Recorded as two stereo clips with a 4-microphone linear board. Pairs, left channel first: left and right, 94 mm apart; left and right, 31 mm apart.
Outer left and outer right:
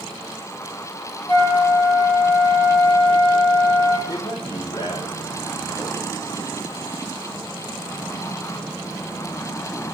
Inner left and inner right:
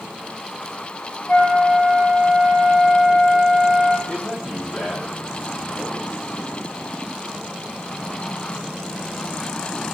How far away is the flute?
About 5.5 m.